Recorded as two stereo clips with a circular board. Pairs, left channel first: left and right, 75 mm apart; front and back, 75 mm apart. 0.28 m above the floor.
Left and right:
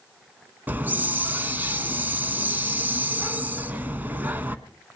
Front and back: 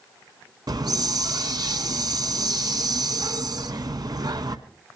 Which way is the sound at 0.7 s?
155° right.